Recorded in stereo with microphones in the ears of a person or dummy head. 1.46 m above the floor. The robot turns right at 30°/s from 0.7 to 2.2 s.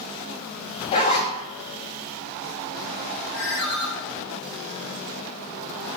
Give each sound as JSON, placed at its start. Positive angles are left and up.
{"t": 0.9, "sound": "a zipper", "side_deg": 30, "distance_m": 1.1}
{"t": 3.3, "sound": "a ringtone", "side_deg": 60, "distance_m": 1.9}